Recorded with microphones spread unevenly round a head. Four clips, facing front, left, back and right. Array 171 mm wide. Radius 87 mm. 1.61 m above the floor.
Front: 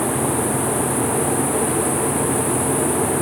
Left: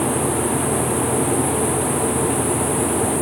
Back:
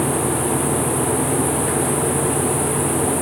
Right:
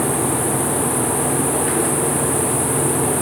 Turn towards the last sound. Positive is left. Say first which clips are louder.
# even, even
turn(degrees=-40)